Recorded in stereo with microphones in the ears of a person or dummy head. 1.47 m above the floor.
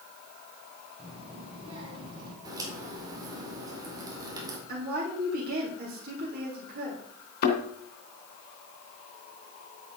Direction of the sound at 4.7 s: 50° right (ahead or behind).